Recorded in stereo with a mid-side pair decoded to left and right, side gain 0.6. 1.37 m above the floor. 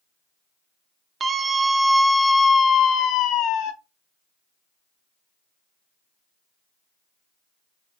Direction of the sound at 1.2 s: 35° right.